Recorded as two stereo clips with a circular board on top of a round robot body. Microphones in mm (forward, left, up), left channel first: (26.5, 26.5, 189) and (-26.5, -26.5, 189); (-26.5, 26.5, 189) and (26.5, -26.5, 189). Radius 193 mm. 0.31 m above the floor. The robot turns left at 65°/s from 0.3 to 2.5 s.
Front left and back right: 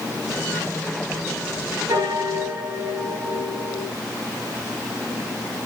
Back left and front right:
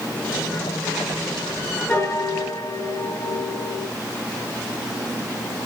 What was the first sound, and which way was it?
A piano, 165° right.